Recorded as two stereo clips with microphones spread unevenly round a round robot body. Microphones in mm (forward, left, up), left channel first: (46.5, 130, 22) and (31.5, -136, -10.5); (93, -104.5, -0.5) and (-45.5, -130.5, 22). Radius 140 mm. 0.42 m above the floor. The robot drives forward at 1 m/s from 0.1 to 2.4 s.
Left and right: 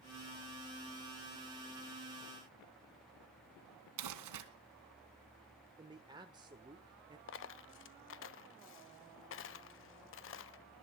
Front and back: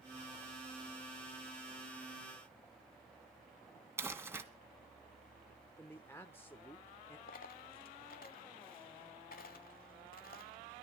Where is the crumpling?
95° right, 2.5 m.